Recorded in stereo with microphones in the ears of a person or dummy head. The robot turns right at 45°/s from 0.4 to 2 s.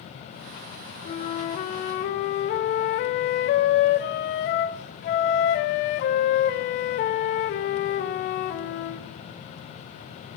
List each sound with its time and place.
1.1 s a flute: 55° left, 0.7 m; by 9.1 s 100° left, 0.7 m